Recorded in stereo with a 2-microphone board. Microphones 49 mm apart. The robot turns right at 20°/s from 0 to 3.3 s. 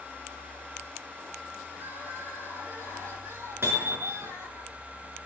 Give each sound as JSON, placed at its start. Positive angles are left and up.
{"t": 1.7, "sound": "crying", "azimuth_deg": -130, "distance_m": 7.5}
{"t": 3.6, "sound": "hammering", "side_deg": -55, "distance_m": 5.0}